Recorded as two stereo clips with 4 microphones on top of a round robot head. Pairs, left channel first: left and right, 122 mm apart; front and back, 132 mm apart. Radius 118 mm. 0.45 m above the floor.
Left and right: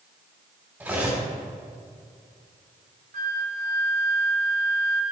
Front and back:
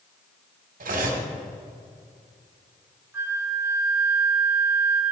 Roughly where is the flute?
Right.